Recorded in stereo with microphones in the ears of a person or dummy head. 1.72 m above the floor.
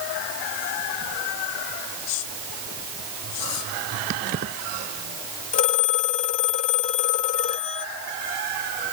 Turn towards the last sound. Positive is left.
turn(degrees=40)  # may be behind; listen again after turning